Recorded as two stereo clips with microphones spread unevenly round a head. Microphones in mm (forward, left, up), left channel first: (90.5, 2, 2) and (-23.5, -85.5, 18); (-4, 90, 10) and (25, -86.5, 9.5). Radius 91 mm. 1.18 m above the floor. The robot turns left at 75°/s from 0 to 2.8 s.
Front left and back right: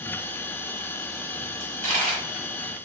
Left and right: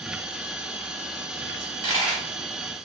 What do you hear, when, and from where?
1.6 s a dropped coin: 125° right, 1.0 m; by 2.2 s 175° right, 1.0 m